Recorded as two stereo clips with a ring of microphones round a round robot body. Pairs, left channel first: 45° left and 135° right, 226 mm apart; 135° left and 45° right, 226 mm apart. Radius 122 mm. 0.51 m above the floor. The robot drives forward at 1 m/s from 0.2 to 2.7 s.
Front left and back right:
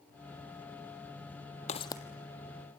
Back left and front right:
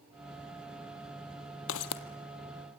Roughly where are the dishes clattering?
No dishes clattering in this recording.